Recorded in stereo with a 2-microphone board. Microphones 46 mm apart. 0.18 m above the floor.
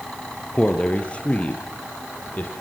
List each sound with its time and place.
0.5 s a man speaking: 20° left (ahead or behind), 3.5 m; by 2.5 s 35° left (ahead or behind), 5 m